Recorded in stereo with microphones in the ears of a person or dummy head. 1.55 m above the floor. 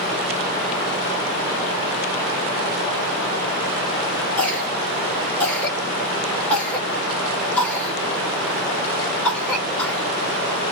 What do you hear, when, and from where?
4.4 s a cough: centre (ahead or behind), 1.7 m